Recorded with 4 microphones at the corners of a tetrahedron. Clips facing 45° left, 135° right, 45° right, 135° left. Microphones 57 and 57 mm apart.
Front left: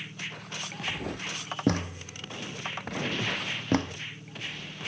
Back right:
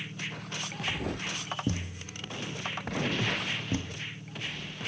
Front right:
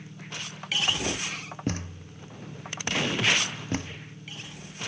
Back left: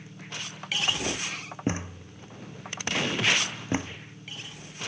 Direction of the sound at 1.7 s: 70° left.